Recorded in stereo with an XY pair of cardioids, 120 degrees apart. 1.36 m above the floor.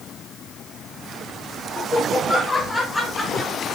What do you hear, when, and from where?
1.8 s laughter: 25° left, 3 m; by 3.5 s 10° left, 3.5 m